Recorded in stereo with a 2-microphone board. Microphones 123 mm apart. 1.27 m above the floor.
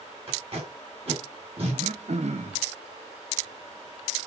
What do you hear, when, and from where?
0.3 s tape being pulled: 50° right (ahead or behind), 5.5 m
1.7 s throat clearing: 65° right (ahead or behind), 1.0 m